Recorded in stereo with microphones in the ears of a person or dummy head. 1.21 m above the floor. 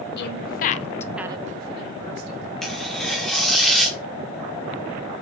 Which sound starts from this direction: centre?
Tearing paper, at 2.6 s.